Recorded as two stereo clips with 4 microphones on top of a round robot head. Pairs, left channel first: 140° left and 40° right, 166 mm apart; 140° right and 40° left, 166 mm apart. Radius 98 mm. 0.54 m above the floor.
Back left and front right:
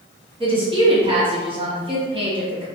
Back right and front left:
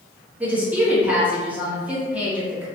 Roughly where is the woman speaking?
Ahead right.